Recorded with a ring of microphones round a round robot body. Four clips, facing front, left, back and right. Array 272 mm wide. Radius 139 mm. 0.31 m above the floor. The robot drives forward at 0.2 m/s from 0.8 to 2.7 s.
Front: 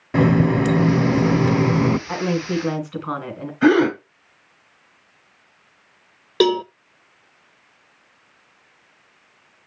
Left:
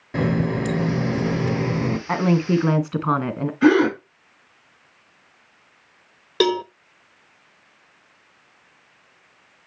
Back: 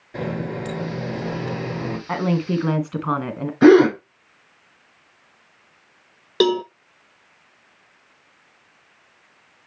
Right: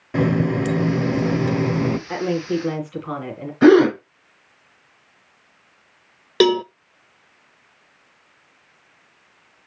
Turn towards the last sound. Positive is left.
turn(degrees=-90)